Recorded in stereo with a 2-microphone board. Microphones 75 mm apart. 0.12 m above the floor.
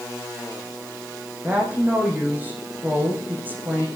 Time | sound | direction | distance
1.4 | a woman speaking | 25° right (ahead or behind) | 6.5 m